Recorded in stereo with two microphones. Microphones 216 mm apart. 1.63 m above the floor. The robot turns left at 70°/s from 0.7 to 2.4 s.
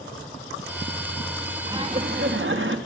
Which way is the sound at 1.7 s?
20° right.